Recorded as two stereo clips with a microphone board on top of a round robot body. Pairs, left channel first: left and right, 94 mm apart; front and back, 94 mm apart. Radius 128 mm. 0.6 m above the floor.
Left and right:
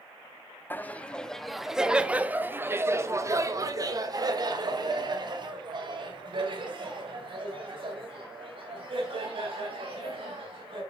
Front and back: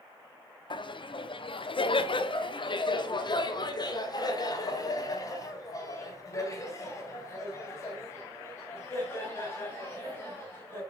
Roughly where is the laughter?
Ahead.